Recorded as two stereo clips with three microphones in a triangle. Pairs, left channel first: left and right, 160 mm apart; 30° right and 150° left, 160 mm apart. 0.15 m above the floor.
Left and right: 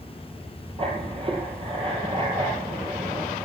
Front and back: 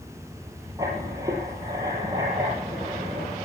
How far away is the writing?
About 3.5 m.